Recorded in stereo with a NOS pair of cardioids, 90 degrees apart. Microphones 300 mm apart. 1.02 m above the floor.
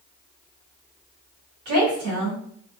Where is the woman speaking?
70° right, 1.6 m.